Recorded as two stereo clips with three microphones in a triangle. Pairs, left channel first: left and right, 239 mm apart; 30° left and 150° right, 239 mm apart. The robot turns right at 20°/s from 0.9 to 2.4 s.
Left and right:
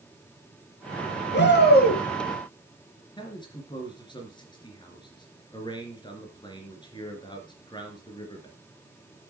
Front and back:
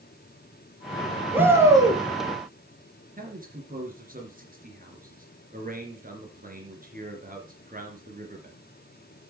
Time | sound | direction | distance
1.3 | a shout | 130° left | 3.5 m
3.2 | a man speaking | 160° left | 3 m